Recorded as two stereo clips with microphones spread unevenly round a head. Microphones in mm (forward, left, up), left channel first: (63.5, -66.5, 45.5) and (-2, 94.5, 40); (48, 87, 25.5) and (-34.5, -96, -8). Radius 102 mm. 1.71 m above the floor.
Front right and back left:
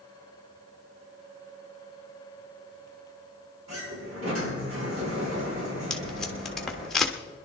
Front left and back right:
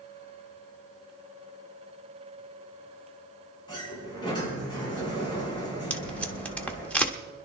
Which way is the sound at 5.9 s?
10° left.